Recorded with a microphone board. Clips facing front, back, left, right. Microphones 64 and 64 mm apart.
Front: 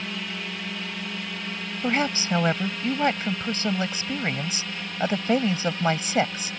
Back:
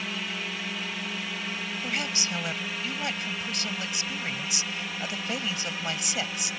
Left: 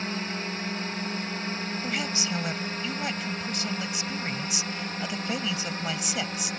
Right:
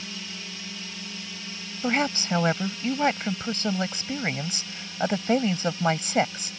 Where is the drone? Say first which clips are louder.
Front 1 dB, left 7 dB; 95° left.